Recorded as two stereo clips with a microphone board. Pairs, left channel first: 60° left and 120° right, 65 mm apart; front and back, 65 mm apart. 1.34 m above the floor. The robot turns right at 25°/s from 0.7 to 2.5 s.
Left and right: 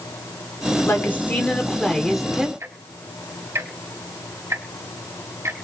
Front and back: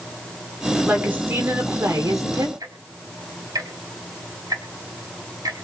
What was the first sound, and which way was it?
A woman speaking, 115° left.